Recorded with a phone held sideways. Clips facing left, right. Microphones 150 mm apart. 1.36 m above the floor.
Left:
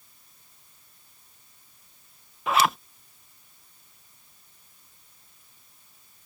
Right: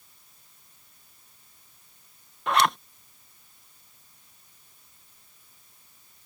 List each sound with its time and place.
2.5 s a zipper: 5° left (ahead or behind)